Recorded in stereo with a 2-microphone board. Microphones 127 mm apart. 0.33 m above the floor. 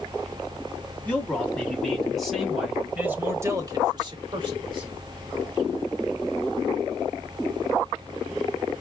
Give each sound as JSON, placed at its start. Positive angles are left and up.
{"t": 1.1, "sound": "a man speaking", "side_deg": 10, "distance_m": 2.5}